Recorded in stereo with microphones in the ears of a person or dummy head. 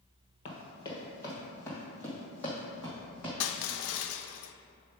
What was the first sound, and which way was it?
Running footsteps, 30° left (ahead or behind).